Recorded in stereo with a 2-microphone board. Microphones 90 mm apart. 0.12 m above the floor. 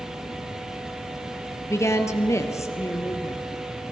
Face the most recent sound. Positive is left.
turn(degrees=35)  # may be behind; listen again after turning